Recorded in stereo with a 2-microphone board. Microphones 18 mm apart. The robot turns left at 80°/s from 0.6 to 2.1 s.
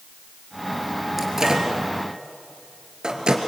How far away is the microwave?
About 3 m.